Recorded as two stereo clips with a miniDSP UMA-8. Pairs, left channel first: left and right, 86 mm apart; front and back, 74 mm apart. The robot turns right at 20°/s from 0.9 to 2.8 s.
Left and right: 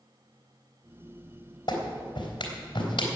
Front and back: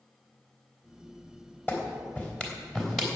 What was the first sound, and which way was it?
A clap, 60° left.